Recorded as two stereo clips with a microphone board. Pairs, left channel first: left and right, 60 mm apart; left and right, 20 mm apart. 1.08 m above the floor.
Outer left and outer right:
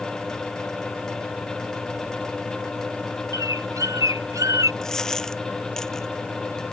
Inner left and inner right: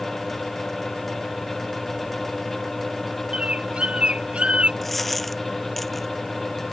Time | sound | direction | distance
3.3 | a bird | 85° right | ?
4.8 | a dropped coin | 10° left (ahead or behind) | ?